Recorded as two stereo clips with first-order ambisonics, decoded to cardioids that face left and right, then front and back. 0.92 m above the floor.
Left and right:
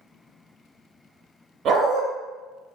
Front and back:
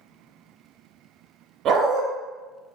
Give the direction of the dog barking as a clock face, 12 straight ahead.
5 o'clock.